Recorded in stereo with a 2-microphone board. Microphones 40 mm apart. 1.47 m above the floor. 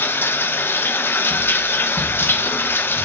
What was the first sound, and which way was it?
Running water, 65° left (ahead or behind).